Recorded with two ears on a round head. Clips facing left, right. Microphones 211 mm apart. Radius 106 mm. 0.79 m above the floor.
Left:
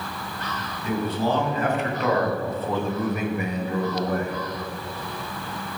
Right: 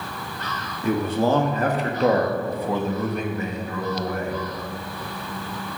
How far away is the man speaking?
About 1.9 m.